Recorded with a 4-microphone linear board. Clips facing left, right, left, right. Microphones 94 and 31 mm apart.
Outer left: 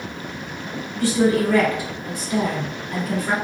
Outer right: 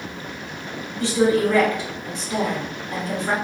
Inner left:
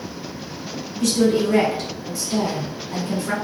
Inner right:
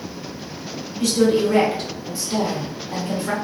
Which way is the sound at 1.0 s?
25° right (ahead or behind).